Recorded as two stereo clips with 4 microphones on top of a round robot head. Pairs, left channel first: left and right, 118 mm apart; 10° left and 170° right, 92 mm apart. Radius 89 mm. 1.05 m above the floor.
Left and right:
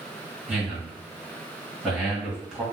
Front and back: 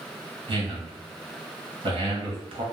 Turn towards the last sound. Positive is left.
turn(degrees=-175)